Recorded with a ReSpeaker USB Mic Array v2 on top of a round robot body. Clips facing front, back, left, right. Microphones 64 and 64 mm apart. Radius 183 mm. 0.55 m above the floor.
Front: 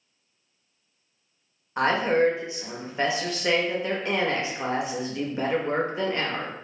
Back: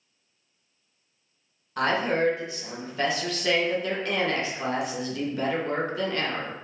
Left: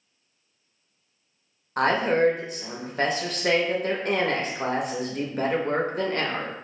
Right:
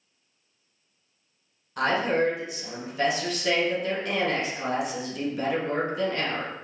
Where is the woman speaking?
60° left, 0.8 m.